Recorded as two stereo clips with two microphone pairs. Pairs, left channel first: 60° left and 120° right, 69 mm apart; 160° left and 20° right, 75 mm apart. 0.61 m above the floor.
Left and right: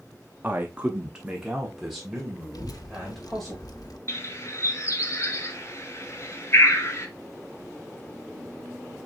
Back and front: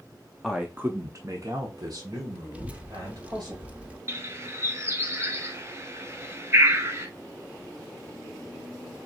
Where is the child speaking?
45° left, 0.8 m.